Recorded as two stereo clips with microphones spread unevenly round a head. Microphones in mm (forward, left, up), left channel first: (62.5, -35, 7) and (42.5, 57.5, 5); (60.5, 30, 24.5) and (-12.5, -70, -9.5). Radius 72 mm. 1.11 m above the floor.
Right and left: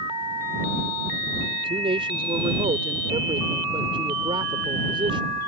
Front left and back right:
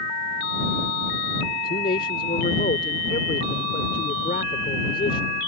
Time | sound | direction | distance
1.5 | a man speaking | 80° left | ?